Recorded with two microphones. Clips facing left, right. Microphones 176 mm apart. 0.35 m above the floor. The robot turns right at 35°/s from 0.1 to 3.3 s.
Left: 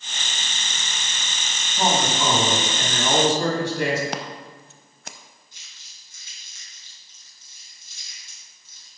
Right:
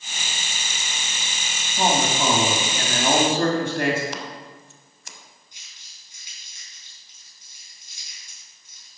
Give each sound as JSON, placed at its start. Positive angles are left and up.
{"t": 1.8, "sound": "a man speaking", "azimuth_deg": -160, "distance_m": 2.5}
{"t": 4.1, "sound": "scissors", "side_deg": 65, "distance_m": 0.7}
{"t": 5.5, "sound": "crumpling", "side_deg": -15, "distance_m": 4.0}